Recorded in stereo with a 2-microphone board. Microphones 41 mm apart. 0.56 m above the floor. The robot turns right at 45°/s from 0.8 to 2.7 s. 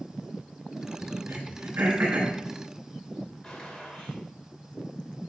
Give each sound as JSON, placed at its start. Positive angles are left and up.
{"t": 1.3, "sound": "throat clearing", "side_deg": -85, "distance_m": 4.0}
{"t": 3.4, "sound": "a gunshot", "side_deg": 20, "distance_m": 2.5}